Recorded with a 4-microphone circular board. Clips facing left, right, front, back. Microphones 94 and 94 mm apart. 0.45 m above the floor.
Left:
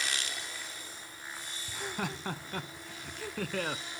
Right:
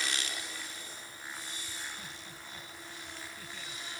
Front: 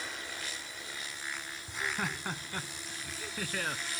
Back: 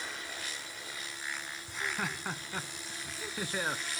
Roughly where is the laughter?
Left.